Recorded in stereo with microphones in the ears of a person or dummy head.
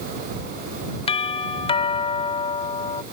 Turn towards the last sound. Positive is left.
turn(degrees=30)  # may be behind; listen again after turning